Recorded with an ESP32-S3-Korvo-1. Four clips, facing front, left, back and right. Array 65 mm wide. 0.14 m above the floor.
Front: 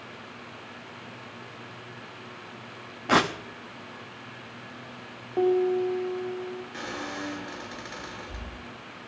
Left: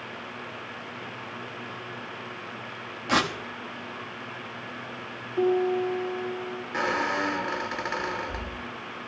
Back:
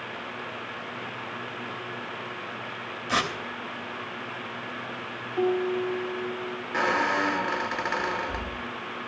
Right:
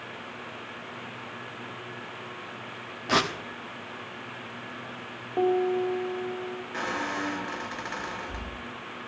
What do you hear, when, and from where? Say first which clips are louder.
3.1 s tearing paper: left 1 dB, front 5 dB; straight ahead, 1.2 m
5.4 s a piano: left 1 dB, front 3 dB; 55° right, 3.5 m
6.7 s a squeak: left 5 dB, back 15 dB; 160° left, 0.7 m